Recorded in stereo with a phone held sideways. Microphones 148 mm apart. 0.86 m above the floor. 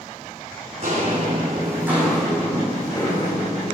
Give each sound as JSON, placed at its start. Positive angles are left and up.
{"t": 0.8, "sound": "footsteps", "side_deg": -45, "distance_m": 2.5}